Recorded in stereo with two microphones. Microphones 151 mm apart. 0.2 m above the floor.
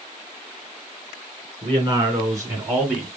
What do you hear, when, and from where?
1.6 s a man speaking: 35° right (ahead or behind), 3 m; by 3.1 s centre (ahead or behind), 1.9 m